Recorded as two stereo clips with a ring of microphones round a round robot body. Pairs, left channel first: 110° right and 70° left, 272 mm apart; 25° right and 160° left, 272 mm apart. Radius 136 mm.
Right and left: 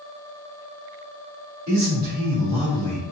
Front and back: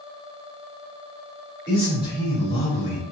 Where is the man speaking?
45° left, 1.6 m; by 3.0 s 5° left, 1.5 m.